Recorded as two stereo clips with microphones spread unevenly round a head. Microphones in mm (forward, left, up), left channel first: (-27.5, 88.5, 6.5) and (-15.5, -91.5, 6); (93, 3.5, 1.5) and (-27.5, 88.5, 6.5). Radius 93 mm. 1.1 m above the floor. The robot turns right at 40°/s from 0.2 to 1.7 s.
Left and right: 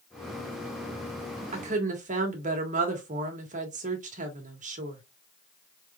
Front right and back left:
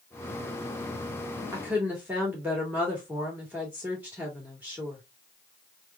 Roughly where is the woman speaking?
Behind right.